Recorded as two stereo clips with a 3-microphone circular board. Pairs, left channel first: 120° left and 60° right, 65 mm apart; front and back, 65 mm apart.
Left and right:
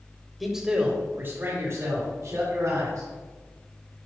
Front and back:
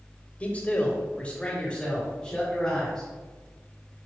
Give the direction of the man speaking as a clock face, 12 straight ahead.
11 o'clock.